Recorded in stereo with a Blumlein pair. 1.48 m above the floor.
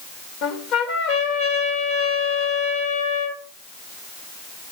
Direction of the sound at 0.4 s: 40° left.